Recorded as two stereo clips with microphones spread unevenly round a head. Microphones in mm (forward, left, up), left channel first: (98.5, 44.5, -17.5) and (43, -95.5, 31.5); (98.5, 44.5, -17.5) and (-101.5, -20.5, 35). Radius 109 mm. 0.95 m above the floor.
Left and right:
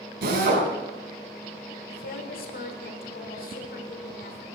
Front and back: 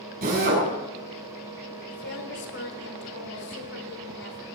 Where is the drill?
110° right, 6.5 m.